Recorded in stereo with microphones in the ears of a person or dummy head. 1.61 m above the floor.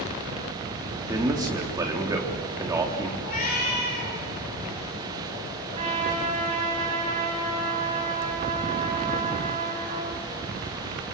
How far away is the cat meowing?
About 9 m.